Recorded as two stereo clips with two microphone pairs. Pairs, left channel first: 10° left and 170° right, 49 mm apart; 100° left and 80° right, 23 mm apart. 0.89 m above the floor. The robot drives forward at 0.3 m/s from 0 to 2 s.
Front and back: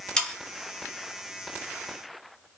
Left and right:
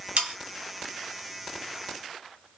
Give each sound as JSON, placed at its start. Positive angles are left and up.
{"t": 0.2, "sound": "sawing", "azimuth_deg": -60, "distance_m": 0.7}